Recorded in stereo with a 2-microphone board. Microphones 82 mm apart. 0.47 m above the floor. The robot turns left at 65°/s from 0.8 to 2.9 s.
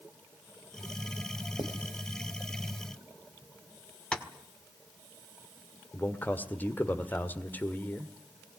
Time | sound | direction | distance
1.6 | writing | 65° right (ahead or behind) | 1.9 m
4.1 | tapping | 10° left (ahead or behind) | 1.6 m
5.9 | a man speaking | 20° left (ahead or behind) | 1.7 m